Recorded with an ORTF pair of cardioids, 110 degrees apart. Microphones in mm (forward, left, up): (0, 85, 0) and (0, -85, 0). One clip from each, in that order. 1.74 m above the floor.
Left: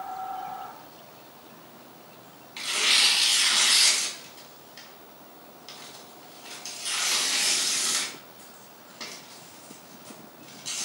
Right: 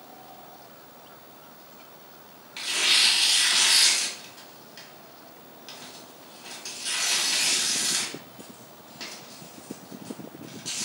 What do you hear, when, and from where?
2.6 s tearing paper: 5° right, 1.2 m